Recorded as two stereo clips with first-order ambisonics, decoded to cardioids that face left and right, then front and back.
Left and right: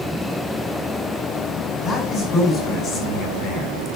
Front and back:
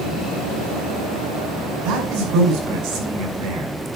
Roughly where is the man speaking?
Behind left.